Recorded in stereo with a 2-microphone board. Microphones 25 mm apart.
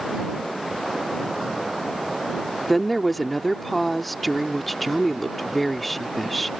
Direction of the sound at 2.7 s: 5° left (ahead or behind).